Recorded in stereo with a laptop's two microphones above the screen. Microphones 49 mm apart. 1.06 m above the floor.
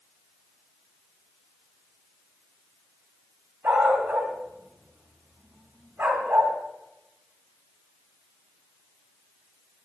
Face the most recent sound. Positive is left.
turn(degrees=-65)  # may be behind; listen again after turning